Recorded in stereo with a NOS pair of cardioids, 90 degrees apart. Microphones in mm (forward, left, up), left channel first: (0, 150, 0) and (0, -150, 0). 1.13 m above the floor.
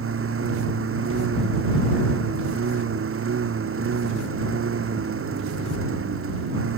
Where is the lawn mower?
45° right.